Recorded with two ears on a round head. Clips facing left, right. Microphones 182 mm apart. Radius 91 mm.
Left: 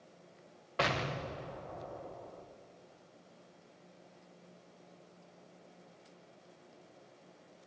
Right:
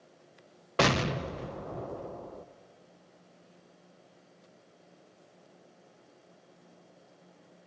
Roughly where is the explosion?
Right.